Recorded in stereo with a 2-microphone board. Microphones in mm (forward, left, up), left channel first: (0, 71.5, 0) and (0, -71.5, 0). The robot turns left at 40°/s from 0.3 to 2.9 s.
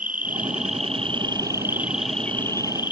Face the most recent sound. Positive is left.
turn(degrees=145)